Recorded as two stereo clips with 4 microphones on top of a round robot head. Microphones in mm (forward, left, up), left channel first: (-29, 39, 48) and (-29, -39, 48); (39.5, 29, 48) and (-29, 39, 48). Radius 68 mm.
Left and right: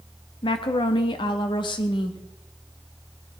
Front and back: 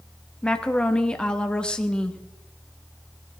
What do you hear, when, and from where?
0.4 s a woman speaking: 70° left, 1.4 m